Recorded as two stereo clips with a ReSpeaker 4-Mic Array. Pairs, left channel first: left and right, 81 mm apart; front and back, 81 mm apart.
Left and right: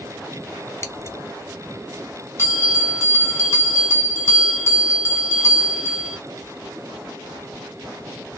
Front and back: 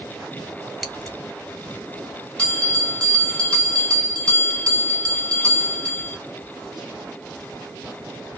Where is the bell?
60° left, 1.5 m.